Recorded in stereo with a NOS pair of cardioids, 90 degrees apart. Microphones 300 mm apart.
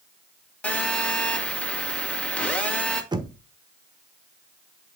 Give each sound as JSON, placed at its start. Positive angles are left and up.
{"t": 0.6, "sound": "a phone buzzing", "azimuth_deg": 5, "distance_m": 3.0}
{"t": 3.1, "sound": "knocking", "azimuth_deg": -15, "distance_m": 1.2}